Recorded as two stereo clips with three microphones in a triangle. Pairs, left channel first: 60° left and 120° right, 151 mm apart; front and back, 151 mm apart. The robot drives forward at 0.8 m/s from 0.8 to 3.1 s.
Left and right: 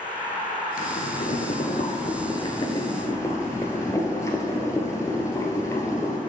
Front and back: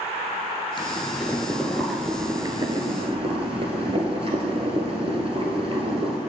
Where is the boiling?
60° left, 1.6 m; by 6.2 s 130° left, 1.7 m.